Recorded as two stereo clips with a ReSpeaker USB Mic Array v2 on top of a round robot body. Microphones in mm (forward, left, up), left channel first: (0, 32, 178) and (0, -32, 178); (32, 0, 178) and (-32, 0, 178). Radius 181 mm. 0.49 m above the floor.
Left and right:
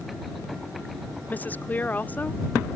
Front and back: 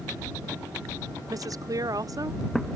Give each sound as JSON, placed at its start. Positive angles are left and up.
{"t": 1.3, "sound": "a woman speaking", "azimuth_deg": 155}